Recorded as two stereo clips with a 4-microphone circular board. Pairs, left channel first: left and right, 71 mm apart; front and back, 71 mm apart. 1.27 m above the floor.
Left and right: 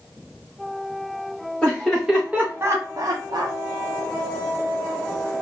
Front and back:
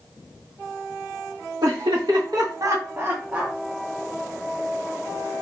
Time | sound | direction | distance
1.6 | laughter | 170° left | 1.4 m